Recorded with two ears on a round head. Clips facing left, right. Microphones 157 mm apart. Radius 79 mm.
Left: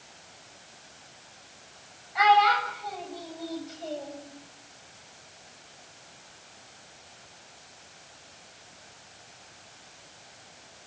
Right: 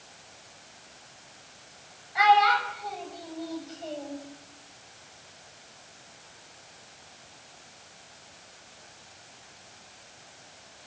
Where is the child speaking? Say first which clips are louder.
Even; 5° right (ahead or behind), 8 m; by 4.2 s 15° left (ahead or behind), 8 m.